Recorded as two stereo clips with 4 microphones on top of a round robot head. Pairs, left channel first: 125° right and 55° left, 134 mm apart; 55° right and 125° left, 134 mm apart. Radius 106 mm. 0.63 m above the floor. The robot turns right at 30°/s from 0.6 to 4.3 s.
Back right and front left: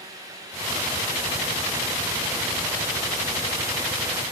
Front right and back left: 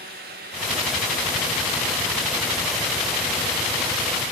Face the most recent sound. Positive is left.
No sound to turn to.